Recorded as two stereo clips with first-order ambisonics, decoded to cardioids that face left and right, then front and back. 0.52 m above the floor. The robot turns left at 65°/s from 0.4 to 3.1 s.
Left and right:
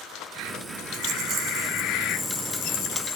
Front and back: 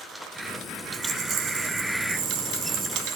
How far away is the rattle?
About 1.1 m.